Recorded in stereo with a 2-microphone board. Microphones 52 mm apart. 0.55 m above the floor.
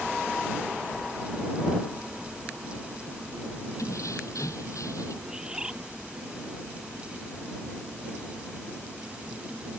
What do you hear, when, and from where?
3.8 s keys jangling: 85° left
5.2 s a bird: 15° right (ahead or behind)